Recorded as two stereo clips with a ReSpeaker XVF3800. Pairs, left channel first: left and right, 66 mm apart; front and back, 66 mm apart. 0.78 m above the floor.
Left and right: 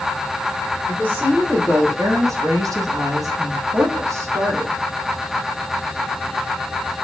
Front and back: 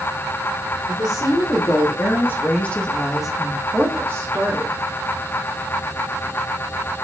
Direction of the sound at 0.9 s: 25° right.